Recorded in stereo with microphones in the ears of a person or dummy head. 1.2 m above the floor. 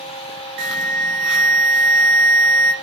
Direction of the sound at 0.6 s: 50° right (ahead or behind).